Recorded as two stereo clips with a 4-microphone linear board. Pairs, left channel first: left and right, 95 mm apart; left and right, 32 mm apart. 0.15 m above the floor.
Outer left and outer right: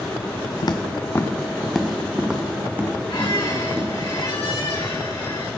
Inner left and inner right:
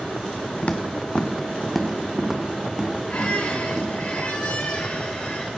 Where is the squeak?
50° left (ahead or behind), 4 m.